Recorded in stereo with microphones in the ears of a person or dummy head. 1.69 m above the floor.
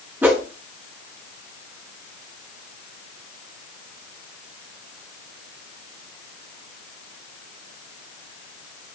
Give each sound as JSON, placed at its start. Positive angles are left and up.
{"t": 0.2, "sound": "a whoosh", "side_deg": -15, "distance_m": 1.5}